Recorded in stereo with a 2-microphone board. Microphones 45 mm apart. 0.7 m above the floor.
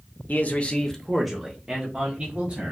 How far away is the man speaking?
About 0.7 m.